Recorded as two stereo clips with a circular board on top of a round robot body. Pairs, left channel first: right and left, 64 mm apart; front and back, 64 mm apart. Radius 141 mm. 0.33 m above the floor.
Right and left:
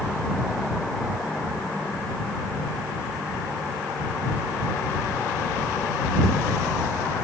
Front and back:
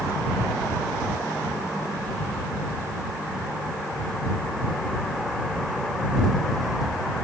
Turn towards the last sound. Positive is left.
No sound to turn to.